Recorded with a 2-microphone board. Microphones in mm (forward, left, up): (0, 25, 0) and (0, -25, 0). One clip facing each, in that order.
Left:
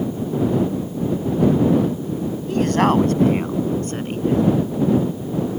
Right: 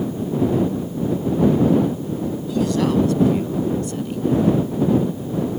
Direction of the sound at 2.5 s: 45° left (ahead or behind).